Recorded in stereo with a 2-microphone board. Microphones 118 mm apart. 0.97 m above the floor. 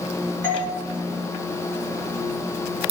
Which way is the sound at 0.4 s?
20° left (ahead or behind).